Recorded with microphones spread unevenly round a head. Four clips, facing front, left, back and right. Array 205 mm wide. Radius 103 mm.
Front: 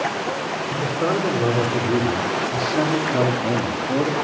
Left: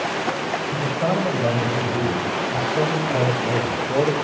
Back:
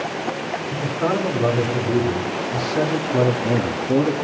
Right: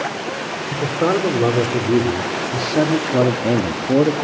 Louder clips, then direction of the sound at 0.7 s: Right 6 dB, even; 95° right.